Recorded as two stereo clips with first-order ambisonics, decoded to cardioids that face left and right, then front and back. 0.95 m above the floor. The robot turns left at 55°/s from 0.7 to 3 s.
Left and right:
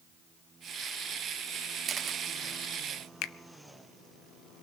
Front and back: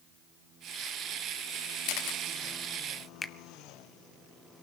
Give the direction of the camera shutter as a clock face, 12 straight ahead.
1 o'clock.